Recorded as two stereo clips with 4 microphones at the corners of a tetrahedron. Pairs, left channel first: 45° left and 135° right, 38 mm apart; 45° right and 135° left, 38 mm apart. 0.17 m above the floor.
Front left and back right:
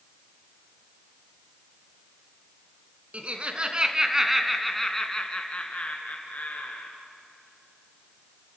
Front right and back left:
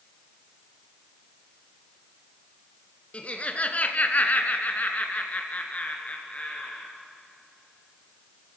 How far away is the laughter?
About 2 m.